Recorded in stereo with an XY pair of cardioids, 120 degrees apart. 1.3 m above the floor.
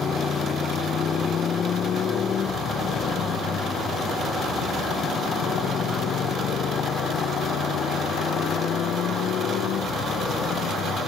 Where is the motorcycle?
40° left; by 11.1 s 60° left.